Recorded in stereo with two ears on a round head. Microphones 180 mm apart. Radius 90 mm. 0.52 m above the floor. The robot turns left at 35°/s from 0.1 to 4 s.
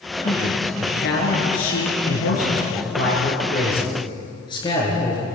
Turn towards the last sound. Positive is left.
turn(degrees=25)